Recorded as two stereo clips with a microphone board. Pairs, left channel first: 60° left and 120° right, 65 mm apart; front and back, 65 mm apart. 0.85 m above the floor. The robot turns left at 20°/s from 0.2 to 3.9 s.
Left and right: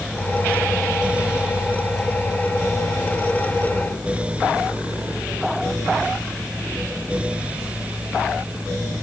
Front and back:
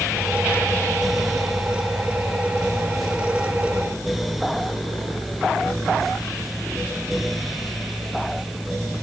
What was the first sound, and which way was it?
Only background noise.